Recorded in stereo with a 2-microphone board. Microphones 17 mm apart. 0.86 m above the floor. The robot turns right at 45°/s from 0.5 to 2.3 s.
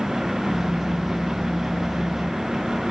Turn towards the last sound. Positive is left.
No sound to turn to.